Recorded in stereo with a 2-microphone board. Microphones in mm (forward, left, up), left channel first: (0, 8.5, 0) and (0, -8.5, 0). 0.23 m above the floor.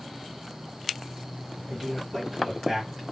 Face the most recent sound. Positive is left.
turn(degrees=-5)  # may be behind; listen again after turning